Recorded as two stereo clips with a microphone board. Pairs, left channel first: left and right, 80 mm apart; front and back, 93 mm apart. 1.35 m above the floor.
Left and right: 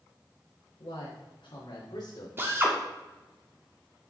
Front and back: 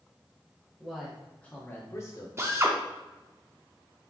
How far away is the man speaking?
About 1.3 m.